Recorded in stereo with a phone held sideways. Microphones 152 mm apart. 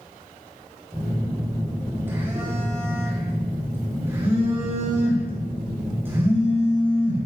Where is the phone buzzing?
15° right (ahead or behind), 5 m.